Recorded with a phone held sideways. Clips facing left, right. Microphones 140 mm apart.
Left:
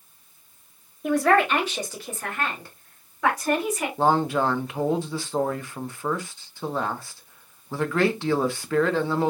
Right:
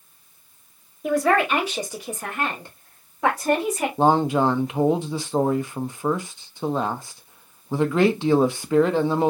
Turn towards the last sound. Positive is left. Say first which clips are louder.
# right 3 dB
turn(degrees=-20)  # may be behind; listen again after turning